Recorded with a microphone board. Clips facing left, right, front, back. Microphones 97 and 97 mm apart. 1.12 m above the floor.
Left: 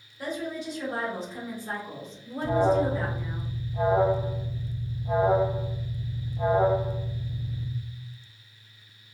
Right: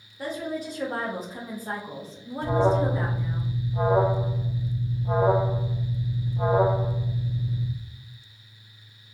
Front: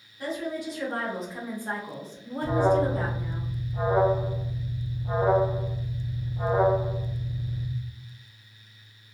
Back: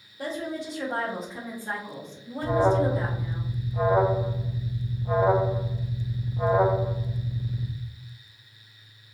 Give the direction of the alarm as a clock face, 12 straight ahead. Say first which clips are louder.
Even, back 1 dB; 2 o'clock.